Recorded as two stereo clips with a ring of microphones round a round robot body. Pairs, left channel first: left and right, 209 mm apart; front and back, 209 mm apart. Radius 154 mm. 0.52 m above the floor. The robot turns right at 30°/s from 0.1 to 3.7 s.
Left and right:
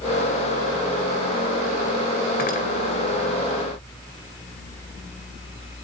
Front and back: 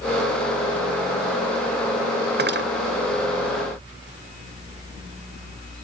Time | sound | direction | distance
2.4 | cutlery clinking | 145° left | 1.6 m